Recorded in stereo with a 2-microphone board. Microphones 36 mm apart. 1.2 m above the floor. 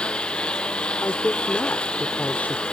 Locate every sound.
0.0 s a lawn mower: 30° left (ahead or behind)
1.0 s a woman speaking: 60° left (ahead or behind)